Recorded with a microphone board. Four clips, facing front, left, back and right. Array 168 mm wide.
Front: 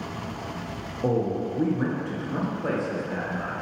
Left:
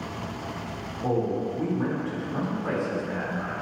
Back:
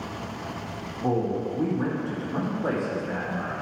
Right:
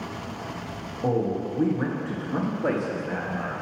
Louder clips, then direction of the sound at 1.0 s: Right 1 dB, front 1 dB; 30° right.